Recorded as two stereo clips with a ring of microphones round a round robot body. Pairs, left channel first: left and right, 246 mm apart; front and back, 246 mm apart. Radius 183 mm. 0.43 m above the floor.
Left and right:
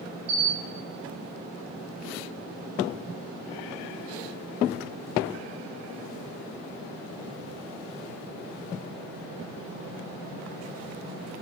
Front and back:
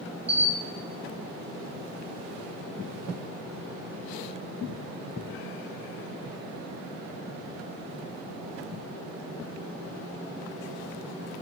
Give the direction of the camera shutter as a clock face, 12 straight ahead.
5 o'clock.